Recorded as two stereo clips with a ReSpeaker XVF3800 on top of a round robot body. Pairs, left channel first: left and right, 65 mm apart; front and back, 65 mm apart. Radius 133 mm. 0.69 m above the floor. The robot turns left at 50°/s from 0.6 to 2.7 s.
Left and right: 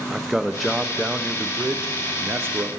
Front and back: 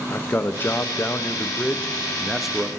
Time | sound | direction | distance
0.1 | a man speaking | 5° right | 0.6 m